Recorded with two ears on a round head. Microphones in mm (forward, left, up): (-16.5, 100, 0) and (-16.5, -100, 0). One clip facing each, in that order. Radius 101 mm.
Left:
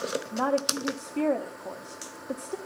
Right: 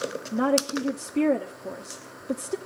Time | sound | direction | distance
0.3 | a woman speaking | 25° right (ahead or behind) | 1.0 m